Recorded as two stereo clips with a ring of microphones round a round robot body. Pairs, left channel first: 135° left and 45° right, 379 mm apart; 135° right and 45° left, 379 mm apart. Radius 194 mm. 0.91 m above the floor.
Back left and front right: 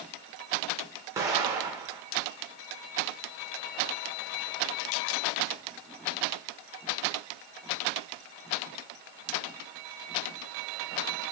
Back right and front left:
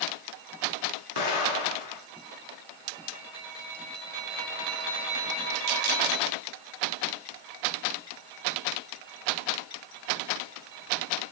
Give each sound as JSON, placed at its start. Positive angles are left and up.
{"t": 1.2, "sound": "an explosion", "azimuth_deg": -125, "distance_m": 1.2}